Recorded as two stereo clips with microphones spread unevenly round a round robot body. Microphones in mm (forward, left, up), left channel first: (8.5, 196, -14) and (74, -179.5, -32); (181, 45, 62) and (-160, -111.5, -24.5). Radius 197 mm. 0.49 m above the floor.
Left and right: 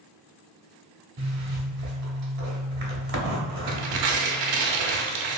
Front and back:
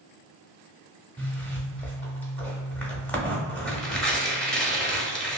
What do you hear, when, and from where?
1.2 s a zipper: 80° right, 0.7 m
3.7 s tearing paper: 70° right, 0.5 m